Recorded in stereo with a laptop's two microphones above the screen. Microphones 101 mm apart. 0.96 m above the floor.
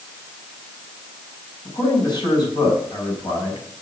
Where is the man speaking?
45° left (ahead or behind), 6 m.